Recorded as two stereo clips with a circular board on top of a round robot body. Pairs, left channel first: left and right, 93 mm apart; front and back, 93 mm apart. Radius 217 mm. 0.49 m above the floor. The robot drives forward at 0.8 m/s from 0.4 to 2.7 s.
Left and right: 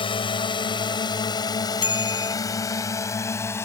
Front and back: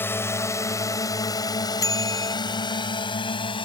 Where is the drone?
65° left; by 3.7 s 25° left.